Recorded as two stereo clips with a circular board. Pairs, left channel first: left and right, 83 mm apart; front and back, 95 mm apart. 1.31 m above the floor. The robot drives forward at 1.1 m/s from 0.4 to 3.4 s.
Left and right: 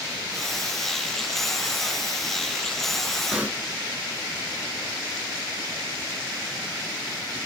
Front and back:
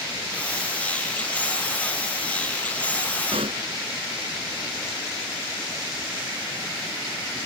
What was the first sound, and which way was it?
A pop, 165° right.